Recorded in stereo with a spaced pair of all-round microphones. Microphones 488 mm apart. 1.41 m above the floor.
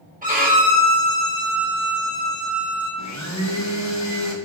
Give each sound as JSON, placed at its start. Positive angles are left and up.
{"t": 0.2, "sound": "a violin", "side_deg": -15, "distance_m": 1.4}
{"t": 3.0, "sound": "a blender", "side_deg": 35, "distance_m": 0.7}